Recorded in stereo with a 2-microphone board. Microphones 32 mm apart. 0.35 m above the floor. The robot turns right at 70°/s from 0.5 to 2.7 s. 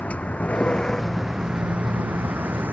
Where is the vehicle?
135° left; by 2.7 s 70° right.